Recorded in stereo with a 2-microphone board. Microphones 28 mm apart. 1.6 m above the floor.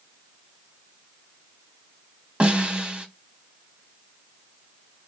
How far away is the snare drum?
About 1.2 m.